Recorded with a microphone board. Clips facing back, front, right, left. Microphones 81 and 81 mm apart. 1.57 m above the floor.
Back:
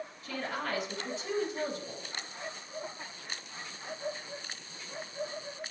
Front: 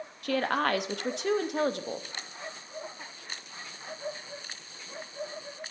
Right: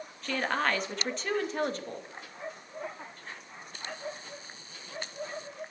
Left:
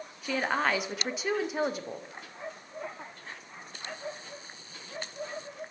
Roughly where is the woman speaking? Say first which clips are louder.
Front 9 dB, left 1 dB; ahead.